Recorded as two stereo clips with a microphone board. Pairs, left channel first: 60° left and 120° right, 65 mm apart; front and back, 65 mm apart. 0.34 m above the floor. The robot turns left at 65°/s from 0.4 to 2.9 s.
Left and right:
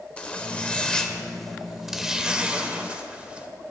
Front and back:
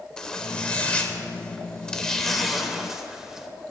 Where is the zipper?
50° left, 1.0 m; by 3.5 s 115° right, 1.0 m.